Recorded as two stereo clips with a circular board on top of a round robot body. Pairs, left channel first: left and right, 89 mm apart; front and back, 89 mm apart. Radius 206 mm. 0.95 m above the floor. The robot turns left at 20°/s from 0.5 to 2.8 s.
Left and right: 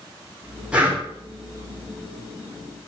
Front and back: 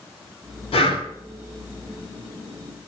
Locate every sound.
0.7 s breathing: 10° right, 2.5 m; by 1.0 s 20° right, 2.5 m